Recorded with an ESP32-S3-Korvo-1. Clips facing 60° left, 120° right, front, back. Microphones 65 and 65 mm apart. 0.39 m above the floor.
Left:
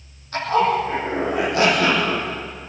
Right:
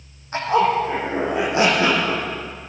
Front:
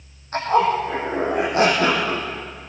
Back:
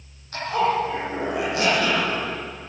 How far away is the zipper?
About 6.5 m.